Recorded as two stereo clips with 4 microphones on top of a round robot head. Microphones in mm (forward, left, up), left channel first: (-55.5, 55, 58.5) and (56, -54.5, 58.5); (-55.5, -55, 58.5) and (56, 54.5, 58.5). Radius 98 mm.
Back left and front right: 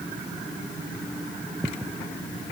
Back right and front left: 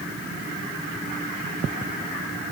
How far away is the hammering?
No hammering in this recording.